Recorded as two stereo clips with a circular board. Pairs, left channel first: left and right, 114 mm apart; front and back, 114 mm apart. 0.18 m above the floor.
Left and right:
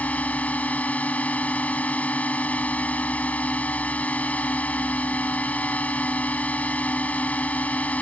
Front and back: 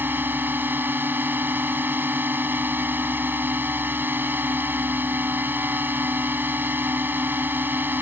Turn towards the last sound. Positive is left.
turn(degrees=145)